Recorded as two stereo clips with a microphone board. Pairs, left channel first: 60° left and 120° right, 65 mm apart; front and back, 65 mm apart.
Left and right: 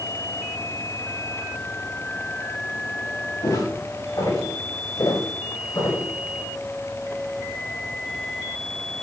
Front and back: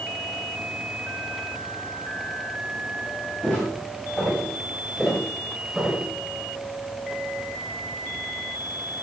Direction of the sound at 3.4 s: 70° left.